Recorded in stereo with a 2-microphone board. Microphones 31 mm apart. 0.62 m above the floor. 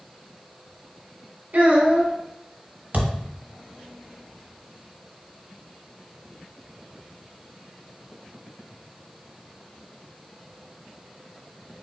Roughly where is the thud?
Right.